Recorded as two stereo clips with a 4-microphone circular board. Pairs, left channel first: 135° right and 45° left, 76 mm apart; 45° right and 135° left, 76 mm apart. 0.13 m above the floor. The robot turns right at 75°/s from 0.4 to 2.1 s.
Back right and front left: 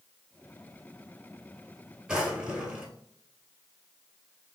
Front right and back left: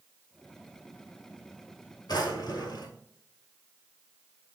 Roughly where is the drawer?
Ahead right.